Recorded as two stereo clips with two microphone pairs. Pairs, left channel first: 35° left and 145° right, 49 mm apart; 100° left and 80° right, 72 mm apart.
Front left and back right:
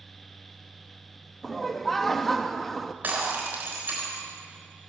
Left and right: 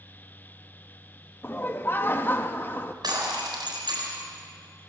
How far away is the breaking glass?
About 3.5 m.